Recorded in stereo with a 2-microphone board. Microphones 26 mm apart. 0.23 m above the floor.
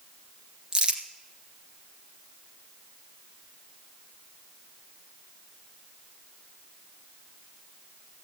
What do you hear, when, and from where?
0.7 s crumpling: 35° right (ahead or behind), 1.5 m